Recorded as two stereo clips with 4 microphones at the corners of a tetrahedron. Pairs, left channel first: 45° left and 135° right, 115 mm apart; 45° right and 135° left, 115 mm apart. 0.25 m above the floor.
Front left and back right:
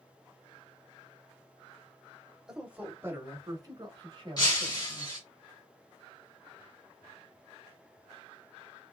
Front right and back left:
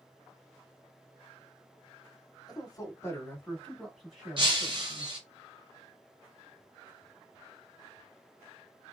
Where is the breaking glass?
95° left, 1.8 m.